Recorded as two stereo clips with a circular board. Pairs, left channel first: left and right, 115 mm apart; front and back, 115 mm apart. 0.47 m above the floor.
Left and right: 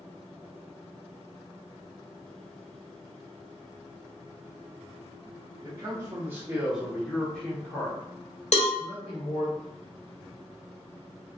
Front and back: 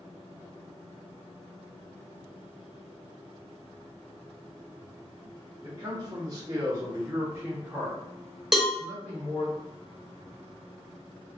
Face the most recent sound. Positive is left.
turn(degrees=95)